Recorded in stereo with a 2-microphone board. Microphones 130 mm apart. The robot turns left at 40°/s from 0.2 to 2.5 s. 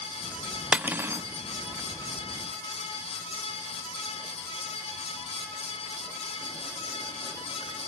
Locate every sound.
0.7 s cutlery clinking: 10° right (ahead or behind), 0.6 m; by 1.3 s 25° right (ahead or behind), 0.6 m